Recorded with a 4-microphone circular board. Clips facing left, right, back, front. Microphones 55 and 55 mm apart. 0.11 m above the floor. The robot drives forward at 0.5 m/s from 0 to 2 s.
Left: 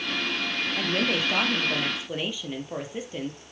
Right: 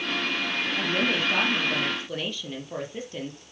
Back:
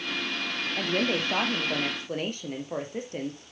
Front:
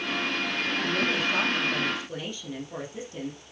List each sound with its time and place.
0.8 s a woman speaking: 165° left, 2.5 m